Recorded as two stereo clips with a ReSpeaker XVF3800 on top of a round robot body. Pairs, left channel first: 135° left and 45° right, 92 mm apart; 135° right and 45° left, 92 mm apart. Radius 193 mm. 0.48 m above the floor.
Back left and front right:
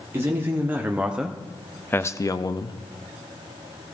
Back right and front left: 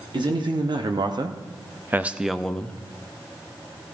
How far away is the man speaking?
About 1.6 m.